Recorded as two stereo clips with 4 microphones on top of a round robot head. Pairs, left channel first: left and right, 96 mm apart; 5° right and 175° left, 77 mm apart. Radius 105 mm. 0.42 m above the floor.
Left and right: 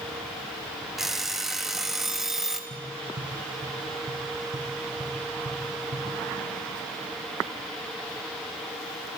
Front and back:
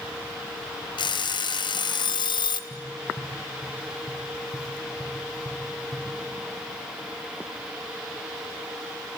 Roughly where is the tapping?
Ahead right.